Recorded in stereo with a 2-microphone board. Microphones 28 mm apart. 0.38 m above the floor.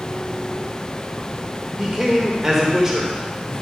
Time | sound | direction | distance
1.8 | a man speaking | 20° right (ahead or behind) | 1.4 m